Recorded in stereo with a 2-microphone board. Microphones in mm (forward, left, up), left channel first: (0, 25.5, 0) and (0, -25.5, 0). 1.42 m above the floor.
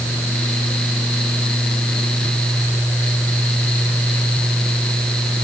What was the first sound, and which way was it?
Only background noise.